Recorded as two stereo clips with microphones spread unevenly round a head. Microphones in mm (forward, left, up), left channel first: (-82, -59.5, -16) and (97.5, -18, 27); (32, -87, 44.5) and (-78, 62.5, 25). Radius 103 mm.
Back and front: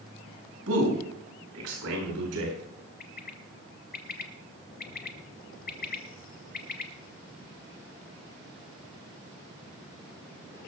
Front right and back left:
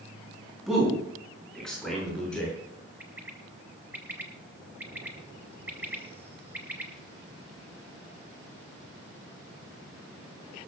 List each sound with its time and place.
0.7 s a man speaking: 40° left, 7.5 m; by 2.6 s 30° left, 9.5 m
3.0 s a bird: 150° right, 1.3 m